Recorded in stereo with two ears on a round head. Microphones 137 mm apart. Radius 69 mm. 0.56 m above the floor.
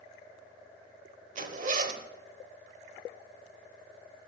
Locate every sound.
1.4 s a zipper: 50° right (ahead or behind), 0.9 m